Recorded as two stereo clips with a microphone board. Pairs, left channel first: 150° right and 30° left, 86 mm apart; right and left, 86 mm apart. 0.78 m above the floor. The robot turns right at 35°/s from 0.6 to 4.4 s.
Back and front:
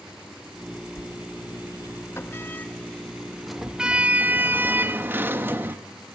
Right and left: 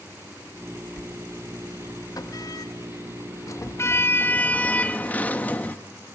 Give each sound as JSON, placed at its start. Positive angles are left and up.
{"t": 1.0, "sound": "a sliding door", "azimuth_deg": -145, "distance_m": 1.0}